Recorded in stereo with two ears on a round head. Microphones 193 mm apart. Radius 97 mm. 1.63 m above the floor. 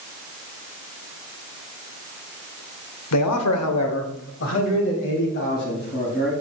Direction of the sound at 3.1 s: 90° left.